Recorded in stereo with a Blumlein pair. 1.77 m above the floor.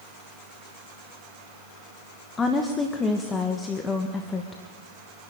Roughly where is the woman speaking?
Ahead.